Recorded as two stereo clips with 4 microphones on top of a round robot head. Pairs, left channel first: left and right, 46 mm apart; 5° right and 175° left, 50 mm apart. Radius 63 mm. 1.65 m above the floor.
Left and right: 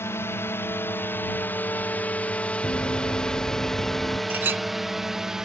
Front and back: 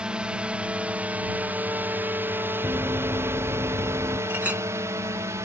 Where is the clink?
120° right.